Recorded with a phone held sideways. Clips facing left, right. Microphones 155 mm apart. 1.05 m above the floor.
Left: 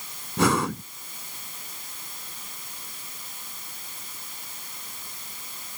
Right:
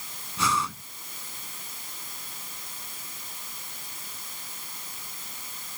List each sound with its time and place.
0.4 s breathing: 60° left (ahead or behind)